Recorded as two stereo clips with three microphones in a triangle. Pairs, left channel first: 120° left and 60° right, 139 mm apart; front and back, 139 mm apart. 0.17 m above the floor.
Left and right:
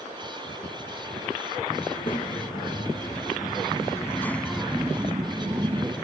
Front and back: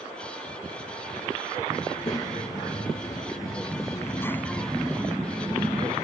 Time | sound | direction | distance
1.9 | a child speaking | 65° left | 4 m